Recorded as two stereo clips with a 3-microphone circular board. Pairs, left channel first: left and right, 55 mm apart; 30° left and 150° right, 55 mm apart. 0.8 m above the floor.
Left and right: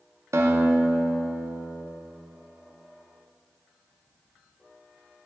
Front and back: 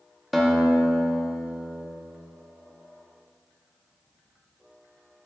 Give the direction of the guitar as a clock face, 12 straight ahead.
2 o'clock.